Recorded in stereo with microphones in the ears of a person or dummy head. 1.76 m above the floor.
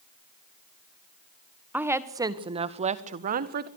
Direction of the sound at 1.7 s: 5° right (ahead or behind).